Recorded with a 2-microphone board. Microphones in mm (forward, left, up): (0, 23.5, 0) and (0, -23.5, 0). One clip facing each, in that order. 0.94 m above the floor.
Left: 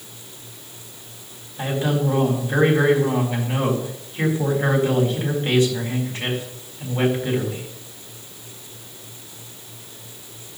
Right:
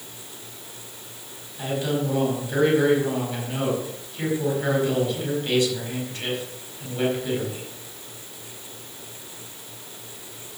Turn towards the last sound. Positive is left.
turn(degrees=30)  # may be behind; listen again after turning